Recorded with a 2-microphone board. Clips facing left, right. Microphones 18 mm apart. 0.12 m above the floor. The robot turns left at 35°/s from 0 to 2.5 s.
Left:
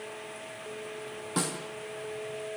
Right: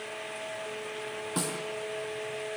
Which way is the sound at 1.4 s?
10° left (ahead or behind).